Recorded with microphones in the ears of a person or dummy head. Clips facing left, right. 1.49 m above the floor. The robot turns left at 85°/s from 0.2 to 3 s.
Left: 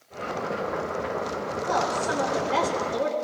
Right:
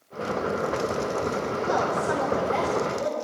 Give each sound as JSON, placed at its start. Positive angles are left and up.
{"t": 1.7, "sound": "a woman speaking", "azimuth_deg": -165, "distance_m": 3.0}